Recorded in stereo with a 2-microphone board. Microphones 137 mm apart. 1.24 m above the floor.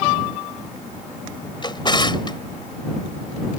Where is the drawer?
35° left (ahead or behind).